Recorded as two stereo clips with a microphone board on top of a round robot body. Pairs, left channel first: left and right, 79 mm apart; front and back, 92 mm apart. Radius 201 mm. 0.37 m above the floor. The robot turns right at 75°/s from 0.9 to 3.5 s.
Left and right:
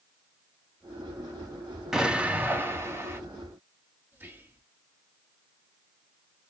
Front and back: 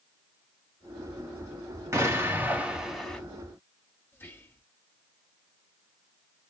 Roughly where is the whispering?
Ahead right.